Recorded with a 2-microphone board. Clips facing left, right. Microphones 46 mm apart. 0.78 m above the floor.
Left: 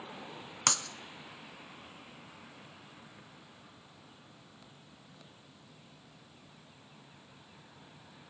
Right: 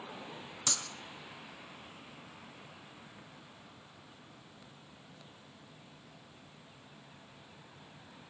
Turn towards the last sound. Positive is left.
turn(degrees=65)  # may be behind; listen again after turning